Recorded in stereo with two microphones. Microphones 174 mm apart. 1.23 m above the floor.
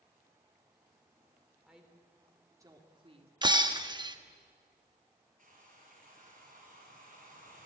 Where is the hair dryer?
50° right (ahead or behind), 5.5 m.